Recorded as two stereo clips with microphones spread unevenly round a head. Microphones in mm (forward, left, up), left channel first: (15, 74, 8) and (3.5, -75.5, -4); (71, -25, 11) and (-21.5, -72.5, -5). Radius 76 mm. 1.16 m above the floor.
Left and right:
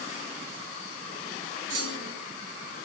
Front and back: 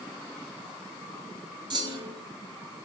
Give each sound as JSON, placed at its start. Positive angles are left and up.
{"t": 1.7, "sound": "a clunk", "azimuth_deg": -110, "distance_m": 1.8}